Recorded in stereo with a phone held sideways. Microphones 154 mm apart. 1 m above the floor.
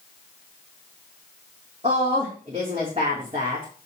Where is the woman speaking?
45° right (ahead or behind), 3 m.